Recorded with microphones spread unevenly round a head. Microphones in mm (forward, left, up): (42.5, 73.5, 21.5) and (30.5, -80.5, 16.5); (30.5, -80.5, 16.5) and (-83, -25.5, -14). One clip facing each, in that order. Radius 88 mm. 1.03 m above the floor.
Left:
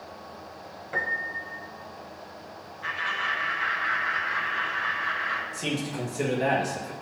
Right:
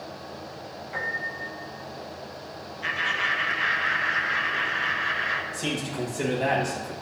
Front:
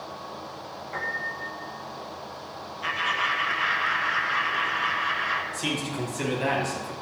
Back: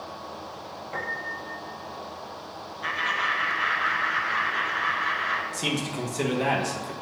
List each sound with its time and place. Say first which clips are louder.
0.9 s a piano: left 2 dB, even; 105° left, 0.7 m
2.8 s laughter: right 1 dB, front 1 dB; 130° right, 0.6 m
5.5 s a man speaking: even, back 1 dB; 170° left, 1.1 m